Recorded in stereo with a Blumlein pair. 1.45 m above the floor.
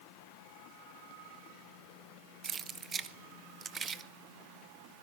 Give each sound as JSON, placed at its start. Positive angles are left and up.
{"t": 2.4, "sound": "keys jangling", "azimuth_deg": -20, "distance_m": 1.0}